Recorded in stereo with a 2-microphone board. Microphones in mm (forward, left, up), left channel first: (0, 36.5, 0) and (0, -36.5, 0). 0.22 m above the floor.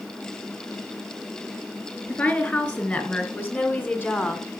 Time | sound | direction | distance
2.1 | a woman speaking | 25° left (ahead or behind) | 3.5 m